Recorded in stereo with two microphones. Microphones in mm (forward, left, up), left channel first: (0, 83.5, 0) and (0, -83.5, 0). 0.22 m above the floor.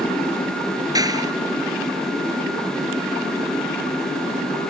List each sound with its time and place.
0.9 s a clap: 20° right (ahead or behind)